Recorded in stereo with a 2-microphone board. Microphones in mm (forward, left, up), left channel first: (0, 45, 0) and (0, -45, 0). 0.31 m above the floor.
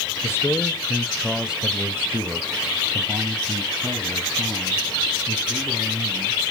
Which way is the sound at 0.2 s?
30° left (ahead or behind).